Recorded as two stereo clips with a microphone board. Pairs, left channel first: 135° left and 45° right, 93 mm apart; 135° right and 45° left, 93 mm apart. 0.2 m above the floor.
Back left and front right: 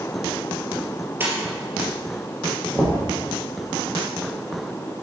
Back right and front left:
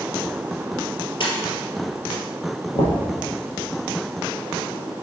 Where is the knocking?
120° right, 3.5 m.